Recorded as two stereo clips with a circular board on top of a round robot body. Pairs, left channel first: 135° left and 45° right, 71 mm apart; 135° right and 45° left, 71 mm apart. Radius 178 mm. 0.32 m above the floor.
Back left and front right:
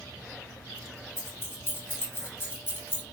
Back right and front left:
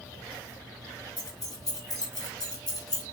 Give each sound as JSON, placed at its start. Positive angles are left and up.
{"t": 1.2, "sound": "keys jangling", "azimuth_deg": -165, "distance_m": 3.5}